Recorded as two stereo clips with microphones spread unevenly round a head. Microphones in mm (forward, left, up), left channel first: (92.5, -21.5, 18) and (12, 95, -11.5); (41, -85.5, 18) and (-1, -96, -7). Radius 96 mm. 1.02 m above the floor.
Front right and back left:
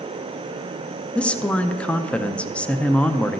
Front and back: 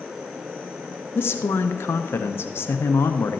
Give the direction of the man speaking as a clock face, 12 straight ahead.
10 o'clock.